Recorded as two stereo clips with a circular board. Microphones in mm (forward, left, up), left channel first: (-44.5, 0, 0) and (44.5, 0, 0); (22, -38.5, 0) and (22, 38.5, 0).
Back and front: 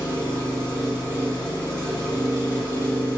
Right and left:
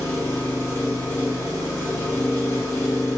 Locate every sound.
0.0 s an engine running: 50° right, 0.9 m